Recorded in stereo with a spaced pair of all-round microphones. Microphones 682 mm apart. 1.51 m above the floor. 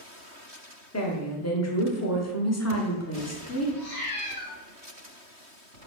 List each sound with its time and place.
0.9 s a woman speaking: 25° left (ahead or behind), 0.7 m
3.8 s a cat meowing: 25° left (ahead or behind), 1.7 m